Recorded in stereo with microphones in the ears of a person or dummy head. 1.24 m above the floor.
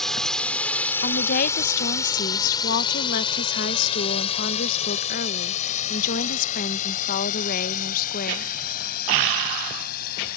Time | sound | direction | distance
0.0 | a drone | centre (ahead or behind) | ?
1.0 | a woman speaking | 50° left (ahead or behind) | ?